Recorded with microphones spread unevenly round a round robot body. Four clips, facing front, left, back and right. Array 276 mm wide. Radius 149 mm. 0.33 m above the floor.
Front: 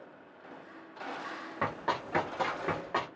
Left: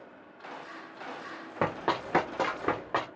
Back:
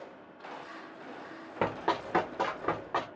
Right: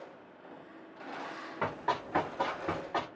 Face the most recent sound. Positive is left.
turn(degrees=85)